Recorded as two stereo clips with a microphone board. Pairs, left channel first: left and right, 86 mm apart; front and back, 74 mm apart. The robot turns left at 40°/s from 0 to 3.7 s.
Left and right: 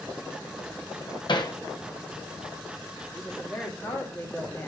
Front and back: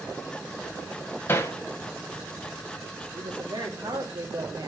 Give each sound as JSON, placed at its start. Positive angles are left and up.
{"t": 1.3, "sound": "hammering", "azimuth_deg": 65, "distance_m": 1.1}
{"t": 3.1, "sound": "a woman speaking", "azimuth_deg": 180, "distance_m": 2.5}